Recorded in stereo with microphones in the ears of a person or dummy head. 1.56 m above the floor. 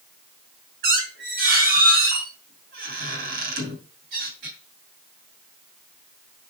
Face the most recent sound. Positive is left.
turn(degrees=-55)  # may be behind; listen again after turning